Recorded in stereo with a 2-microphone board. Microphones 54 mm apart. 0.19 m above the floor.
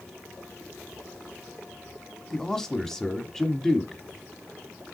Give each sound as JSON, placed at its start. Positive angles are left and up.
{"t": 2.3, "sound": "a man speaking", "side_deg": 10, "distance_m": 1.1}